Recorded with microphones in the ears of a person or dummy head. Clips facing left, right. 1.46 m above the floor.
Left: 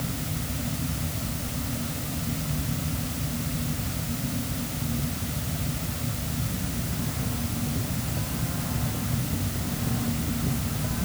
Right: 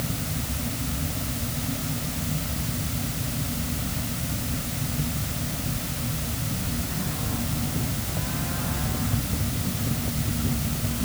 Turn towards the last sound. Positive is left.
No sound to turn to.